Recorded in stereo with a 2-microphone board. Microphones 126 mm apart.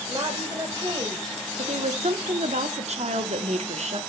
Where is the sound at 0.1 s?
30° right (ahead or behind), 3.5 m.